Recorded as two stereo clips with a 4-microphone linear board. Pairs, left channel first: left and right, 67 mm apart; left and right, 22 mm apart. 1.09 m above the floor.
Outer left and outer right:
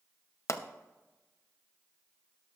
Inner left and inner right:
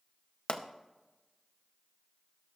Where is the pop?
55° left (ahead or behind), 0.7 m.